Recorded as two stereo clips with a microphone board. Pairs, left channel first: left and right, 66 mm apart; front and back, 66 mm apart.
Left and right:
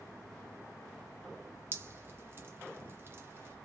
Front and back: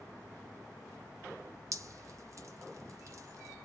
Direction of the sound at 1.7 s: 140° right.